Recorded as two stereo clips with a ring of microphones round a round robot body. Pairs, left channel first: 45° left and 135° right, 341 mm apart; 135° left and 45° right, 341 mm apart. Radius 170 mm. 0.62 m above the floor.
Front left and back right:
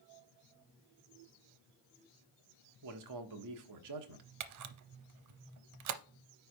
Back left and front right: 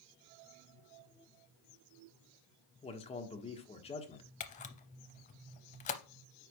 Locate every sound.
2.8 s a man speaking: 155° right, 1.3 m
4.4 s a camera shutter: 160° right, 0.6 m